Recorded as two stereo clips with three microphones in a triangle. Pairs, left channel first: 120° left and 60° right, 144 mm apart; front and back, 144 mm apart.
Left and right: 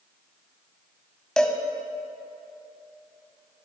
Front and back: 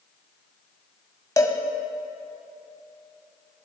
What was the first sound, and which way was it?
A cowbell, 40° left.